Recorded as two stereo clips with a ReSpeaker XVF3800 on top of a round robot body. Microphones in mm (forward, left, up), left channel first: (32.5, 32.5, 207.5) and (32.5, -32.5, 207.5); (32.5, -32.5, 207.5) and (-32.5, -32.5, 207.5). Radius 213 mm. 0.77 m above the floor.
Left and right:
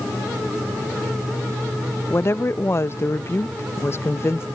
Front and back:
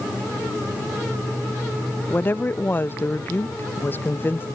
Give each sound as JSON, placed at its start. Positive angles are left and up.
{"t": 2.1, "sound": "a woman speaking", "azimuth_deg": 50}